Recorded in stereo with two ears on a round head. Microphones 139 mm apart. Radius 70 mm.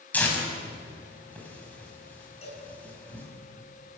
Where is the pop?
I don't hear a pop.